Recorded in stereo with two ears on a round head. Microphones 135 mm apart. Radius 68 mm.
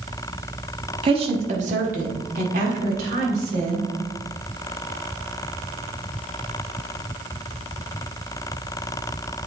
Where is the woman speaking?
35° right (ahead or behind), 1.1 m; by 3.9 s 65° right (ahead or behind), 2.5 m.